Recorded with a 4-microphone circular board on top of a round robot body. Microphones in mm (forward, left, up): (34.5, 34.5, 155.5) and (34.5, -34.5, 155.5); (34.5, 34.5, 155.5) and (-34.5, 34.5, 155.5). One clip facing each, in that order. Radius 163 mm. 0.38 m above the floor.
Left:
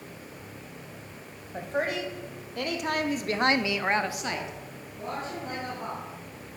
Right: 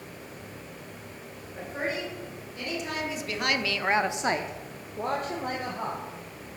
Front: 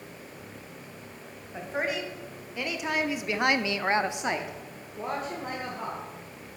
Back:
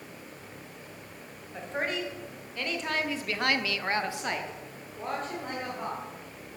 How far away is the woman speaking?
About 3 m.